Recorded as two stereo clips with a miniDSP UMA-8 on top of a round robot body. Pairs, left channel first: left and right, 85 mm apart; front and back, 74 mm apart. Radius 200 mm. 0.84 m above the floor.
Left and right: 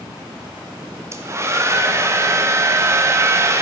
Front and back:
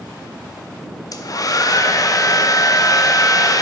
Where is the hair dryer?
35° right, 1.4 m.